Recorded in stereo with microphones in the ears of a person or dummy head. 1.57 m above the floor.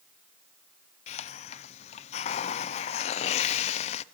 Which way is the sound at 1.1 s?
40° left (ahead or behind).